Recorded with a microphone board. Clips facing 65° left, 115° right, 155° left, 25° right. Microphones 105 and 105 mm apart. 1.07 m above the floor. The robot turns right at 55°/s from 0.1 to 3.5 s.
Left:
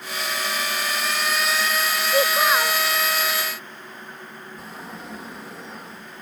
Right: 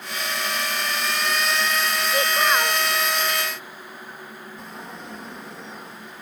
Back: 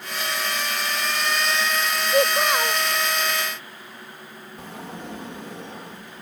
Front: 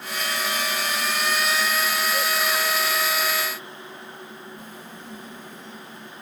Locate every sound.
2.1 s a child speaking: 130° left; by 2.8 s 170° left
4.6 s a sliding door: 155° left